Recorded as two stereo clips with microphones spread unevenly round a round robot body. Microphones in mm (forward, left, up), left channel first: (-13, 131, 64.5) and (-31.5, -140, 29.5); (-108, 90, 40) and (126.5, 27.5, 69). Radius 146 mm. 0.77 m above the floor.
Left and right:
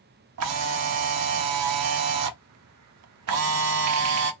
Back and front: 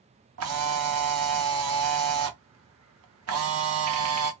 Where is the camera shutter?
55° right, 0.5 m.